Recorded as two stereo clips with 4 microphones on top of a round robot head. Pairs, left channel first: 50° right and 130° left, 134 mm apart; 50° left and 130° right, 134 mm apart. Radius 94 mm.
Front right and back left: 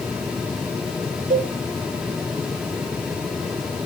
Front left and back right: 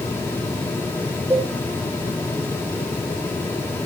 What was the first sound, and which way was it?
A cowbell, 155° left.